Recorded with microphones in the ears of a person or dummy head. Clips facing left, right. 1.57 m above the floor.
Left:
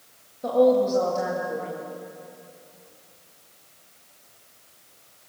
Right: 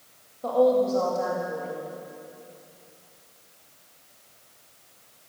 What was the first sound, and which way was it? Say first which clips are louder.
A woman speaking: left 2 dB; 15° left (ahead or behind).